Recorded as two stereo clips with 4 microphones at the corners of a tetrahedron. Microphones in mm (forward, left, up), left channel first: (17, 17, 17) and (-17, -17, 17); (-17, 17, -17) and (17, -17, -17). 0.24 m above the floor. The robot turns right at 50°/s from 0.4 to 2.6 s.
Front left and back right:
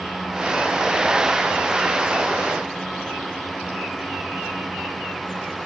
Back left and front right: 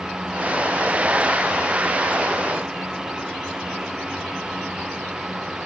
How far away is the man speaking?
I don't hear a man speaking.